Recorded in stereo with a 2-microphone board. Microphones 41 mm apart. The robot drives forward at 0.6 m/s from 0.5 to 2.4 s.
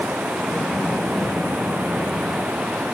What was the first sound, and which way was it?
Running water, 55° right (ahead or behind).